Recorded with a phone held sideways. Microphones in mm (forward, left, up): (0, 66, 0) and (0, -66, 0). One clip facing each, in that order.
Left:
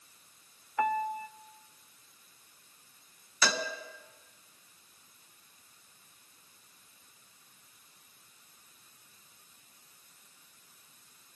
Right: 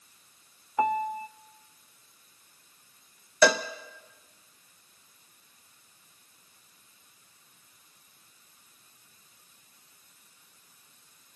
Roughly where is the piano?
Right.